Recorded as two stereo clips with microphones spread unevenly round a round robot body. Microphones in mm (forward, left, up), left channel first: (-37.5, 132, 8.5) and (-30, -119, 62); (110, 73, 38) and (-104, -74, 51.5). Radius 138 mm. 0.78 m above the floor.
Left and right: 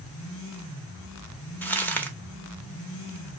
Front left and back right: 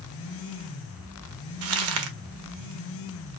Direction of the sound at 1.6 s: 175° left.